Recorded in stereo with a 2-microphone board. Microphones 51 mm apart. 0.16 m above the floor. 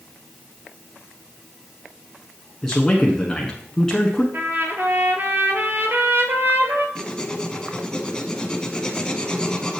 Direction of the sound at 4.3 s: 50° right (ahead or behind).